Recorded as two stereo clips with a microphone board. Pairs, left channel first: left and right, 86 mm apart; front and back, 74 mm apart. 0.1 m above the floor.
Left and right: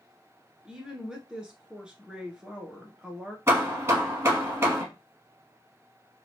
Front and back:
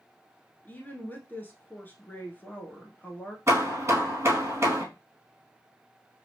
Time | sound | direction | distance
0.7 | a woman speaking | 20° right | 1.2 m
3.5 | hammering | 140° right | 2 m